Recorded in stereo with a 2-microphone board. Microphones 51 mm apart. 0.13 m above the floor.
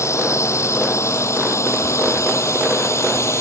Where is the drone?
75° left (ahead or behind); by 3.4 s 70° left (ahead or behind).